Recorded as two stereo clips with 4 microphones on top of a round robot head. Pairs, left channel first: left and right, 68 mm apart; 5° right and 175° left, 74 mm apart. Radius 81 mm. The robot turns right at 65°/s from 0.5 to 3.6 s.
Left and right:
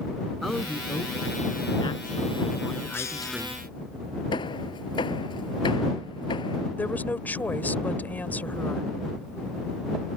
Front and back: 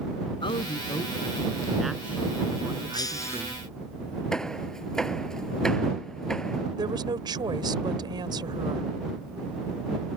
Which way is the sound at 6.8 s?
155° left.